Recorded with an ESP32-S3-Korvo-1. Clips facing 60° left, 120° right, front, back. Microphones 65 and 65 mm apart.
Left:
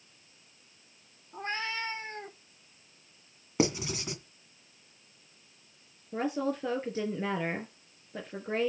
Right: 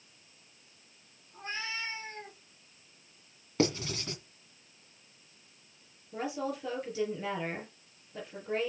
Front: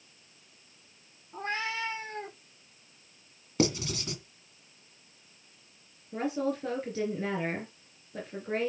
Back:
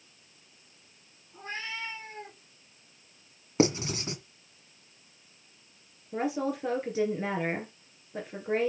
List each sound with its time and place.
1.3 s a cat meowing: 20° left, 2.5 m; by 2.4 s 5° left, 1.8 m
3.6 s writing: 130° left, 2 m
6.1 s a woman speaking: 105° left, 3.5 m